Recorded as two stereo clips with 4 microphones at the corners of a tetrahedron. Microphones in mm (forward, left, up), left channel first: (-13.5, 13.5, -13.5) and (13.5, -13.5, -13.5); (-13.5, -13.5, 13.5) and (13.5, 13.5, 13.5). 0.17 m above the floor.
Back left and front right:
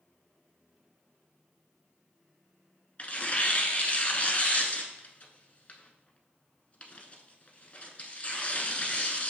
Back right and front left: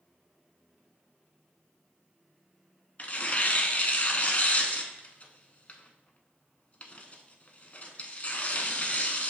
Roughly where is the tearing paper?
Behind.